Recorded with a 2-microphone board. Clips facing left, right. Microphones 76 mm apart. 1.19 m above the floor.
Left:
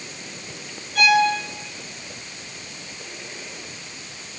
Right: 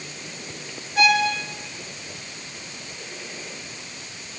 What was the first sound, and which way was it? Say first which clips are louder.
A violin: left 2 dB; 20° right (ahead or behind).